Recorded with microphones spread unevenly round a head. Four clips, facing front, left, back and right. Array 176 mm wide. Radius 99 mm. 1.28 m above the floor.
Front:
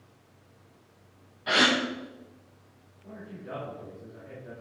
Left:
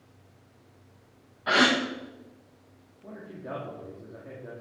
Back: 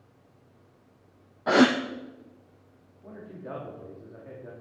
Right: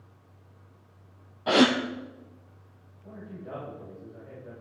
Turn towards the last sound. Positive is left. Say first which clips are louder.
# left 2 dB, back 1 dB
turn(degrees=110)